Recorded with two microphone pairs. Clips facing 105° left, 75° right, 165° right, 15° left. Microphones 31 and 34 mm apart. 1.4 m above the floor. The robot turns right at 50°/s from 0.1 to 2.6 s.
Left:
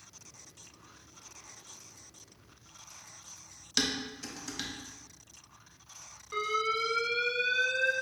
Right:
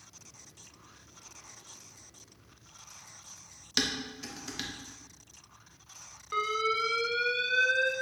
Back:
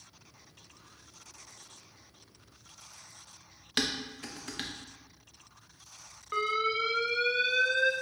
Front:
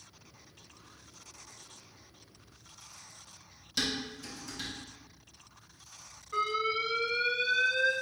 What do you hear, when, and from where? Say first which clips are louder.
3.8 s dishes clattering: even, back 1 dB; 155° right, 0.7 m
6.3 s an alarm: right 1 dB, back 1 dB; 145° right, 0.7 m